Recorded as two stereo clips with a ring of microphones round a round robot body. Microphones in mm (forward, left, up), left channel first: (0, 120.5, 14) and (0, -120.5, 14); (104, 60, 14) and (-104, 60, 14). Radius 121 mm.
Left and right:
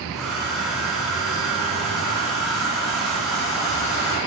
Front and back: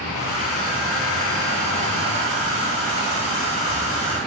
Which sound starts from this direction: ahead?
A hair dryer, at 0.1 s.